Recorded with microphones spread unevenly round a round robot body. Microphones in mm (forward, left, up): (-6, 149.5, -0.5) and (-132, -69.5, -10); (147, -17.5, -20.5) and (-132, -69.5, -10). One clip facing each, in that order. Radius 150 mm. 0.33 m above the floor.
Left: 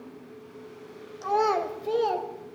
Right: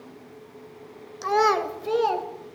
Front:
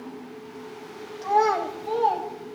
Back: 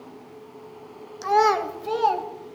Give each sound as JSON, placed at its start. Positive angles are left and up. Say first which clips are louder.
{"t": 1.2, "sound": "a child speaking", "louder": "right 3 dB, back 2 dB", "azimuth_deg": -140, "distance_m": 0.9}